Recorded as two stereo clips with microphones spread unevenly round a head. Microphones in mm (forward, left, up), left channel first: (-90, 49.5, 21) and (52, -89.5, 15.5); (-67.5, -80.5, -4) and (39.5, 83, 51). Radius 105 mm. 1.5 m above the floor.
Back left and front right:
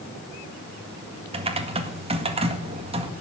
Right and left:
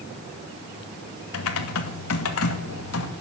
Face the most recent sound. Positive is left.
turn(degrees=-105)